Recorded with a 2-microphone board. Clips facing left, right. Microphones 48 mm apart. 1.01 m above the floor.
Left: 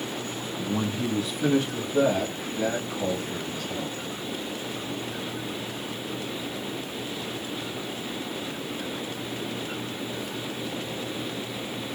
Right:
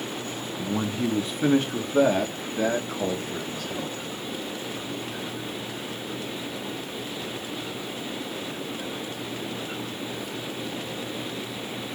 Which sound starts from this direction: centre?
A man speaking, at 0.6 s.